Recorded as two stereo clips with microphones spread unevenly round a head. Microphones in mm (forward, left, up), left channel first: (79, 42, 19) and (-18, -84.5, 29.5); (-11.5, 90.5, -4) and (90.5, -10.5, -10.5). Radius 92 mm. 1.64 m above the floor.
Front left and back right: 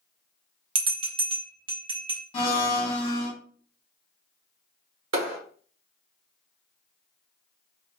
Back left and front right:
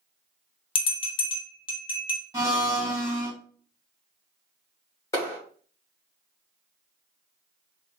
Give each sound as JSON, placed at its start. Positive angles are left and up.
{"t": 0.8, "sound": "a bell", "azimuth_deg": 180, "distance_m": 0.6}
{"t": 2.3, "sound": "a blender", "azimuth_deg": 20, "distance_m": 1.9}
{"t": 5.1, "sound": "a clap", "azimuth_deg": -150, "distance_m": 1.2}